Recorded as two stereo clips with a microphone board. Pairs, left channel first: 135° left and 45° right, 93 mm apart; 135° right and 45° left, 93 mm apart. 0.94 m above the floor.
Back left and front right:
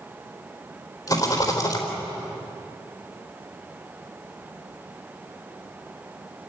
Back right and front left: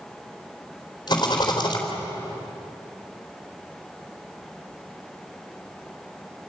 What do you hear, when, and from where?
1.1 s a rattle: 175° right, 4 m